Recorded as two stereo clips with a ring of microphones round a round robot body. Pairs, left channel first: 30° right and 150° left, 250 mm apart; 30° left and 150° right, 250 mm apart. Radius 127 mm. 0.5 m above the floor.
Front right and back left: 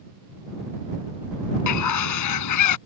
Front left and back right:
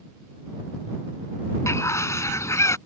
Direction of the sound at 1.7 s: 50° right.